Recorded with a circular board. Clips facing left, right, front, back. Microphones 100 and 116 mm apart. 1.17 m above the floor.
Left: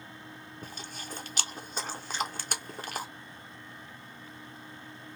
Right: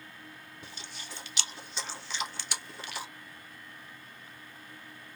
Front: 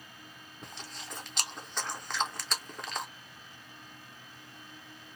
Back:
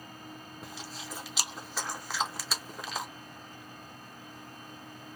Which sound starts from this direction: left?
Chewing, at 0.6 s.